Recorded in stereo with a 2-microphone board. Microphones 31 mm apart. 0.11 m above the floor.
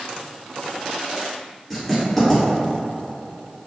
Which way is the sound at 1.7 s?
10° left (ahead or behind).